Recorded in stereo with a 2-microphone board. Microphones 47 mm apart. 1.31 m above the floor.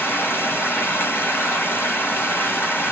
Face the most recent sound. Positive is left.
turn(degrees=50)  # may be behind; listen again after turning